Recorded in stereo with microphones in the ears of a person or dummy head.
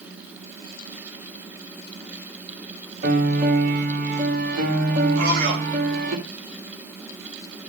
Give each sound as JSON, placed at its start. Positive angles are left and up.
{"t": 3.0, "sound": "a piano", "side_deg": -55, "distance_m": 3.0}
{"t": 5.2, "sound": "a man speaking", "side_deg": -60, "distance_m": 4.5}